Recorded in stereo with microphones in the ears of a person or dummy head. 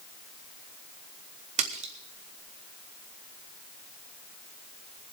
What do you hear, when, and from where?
1.6 s a splash: 35° right (ahead or behind), 1.2 m